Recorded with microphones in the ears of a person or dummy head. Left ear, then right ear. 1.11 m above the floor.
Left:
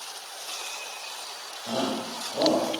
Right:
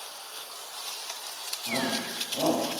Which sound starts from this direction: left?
A shout, at 1.7 s.